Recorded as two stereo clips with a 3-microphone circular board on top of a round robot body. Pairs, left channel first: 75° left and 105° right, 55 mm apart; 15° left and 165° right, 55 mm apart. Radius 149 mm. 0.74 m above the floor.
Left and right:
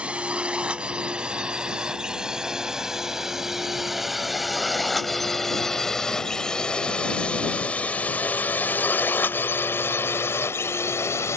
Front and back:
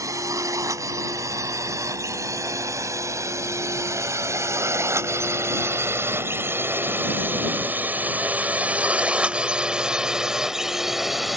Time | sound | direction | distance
0.0 | a drone | 175° right | ?